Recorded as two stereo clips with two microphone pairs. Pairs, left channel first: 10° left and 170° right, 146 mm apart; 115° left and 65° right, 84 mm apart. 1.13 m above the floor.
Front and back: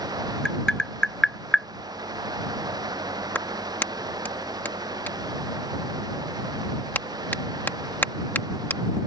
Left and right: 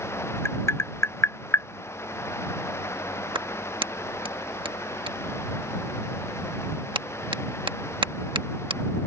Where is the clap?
65° right.